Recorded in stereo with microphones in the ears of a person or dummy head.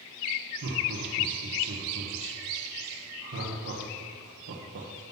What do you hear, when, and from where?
0.6 s laughter: 65° right (ahead or behind), 1.3 m